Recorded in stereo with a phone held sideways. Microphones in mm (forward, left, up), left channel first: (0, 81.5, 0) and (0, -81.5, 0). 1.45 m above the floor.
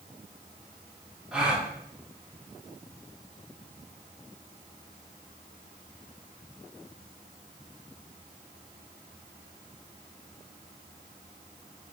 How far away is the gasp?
About 0.6 m.